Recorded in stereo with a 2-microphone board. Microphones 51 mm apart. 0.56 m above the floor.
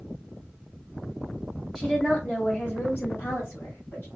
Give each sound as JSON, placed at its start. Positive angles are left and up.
{"t": 1.8, "sound": "a woman speaking", "side_deg": 5, "distance_m": 0.9}